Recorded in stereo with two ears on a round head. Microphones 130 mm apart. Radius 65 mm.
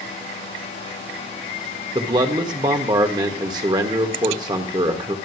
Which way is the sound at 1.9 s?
25° right (ahead or behind).